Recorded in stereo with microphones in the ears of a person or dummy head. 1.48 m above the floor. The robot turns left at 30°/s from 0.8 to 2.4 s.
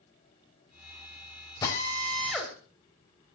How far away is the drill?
About 4 m.